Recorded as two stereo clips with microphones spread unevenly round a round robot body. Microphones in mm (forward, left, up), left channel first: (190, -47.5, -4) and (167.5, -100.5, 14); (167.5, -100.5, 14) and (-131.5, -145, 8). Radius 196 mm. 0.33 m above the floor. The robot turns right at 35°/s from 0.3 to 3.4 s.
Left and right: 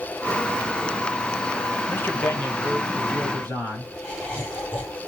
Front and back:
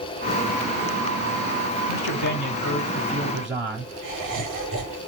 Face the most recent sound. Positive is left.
turn(degrees=145)